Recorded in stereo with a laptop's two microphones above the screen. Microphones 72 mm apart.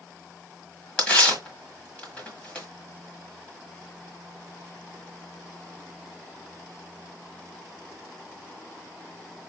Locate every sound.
1.0 s tearing paper: 15° left (ahead or behind), 1.4 m